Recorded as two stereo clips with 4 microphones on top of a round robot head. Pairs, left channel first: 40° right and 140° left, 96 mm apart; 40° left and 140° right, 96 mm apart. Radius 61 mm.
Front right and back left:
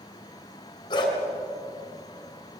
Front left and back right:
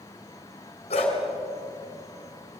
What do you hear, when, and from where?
0.9 s a dog barking: 10° left, 3.5 m